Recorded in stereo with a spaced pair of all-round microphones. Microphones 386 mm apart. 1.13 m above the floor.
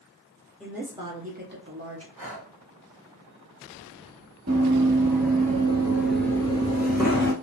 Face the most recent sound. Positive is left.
turn(degrees=35)  # may be behind; listen again after turning